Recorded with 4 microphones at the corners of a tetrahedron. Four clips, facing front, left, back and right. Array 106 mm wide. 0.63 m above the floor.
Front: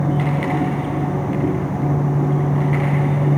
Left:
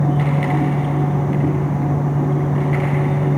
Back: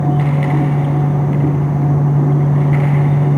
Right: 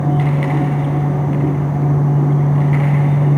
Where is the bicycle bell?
No bicycle bell in this recording.